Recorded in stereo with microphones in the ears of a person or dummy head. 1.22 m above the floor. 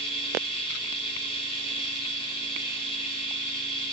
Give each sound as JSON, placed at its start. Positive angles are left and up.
{"t": 0.0, "sound": "a machine running", "side_deg": 35, "distance_m": 3.5}